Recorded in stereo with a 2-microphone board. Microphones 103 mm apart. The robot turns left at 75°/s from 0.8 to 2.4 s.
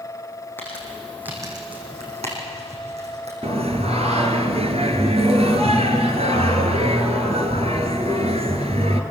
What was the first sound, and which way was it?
Crumpling, 20° left (ahead or behind).